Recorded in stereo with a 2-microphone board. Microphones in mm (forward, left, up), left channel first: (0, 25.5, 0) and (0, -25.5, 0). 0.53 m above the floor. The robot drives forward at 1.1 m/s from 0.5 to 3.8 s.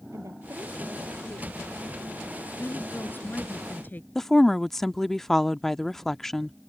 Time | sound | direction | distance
0.1 | a woman speaking | 75° right (ahead or behind) | ?
2.6 | a woman speaking | 45° left (ahead or behind) | ?
4.2 | a woman speaking | 5° left (ahead or behind) | ?